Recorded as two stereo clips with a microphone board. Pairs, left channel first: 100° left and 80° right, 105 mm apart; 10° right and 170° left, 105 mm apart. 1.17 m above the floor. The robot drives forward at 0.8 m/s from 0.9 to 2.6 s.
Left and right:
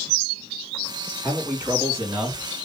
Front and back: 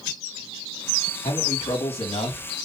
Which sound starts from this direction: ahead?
A man speaking, at 1.2 s.